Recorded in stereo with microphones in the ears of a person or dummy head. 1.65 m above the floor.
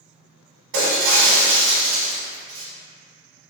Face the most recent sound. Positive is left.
turn(degrees=-65)  # may be behind; listen again after turning